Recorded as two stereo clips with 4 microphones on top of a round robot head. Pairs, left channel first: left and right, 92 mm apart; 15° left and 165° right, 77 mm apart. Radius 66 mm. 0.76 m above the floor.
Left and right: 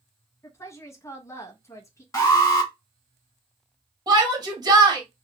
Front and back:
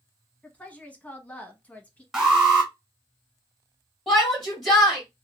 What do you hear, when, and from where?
0.4 s a woman speaking: 65° left, 0.9 m
2.1 s an alarm: 120° left, 1.8 m
4.1 s a shout: 80° right, 1.4 m